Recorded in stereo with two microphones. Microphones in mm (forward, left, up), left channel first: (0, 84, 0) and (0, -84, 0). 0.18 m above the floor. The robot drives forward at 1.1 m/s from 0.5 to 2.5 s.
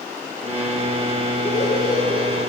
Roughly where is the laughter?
Left.